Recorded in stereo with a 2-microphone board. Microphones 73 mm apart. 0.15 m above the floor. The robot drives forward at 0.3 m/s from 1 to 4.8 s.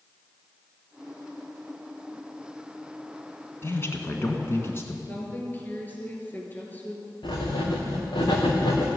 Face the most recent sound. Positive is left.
turn(degrees=80)